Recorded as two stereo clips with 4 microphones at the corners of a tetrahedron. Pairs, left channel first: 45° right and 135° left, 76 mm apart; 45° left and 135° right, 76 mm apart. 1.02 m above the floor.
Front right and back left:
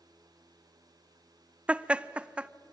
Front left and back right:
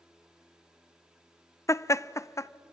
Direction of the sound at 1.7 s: 70° left.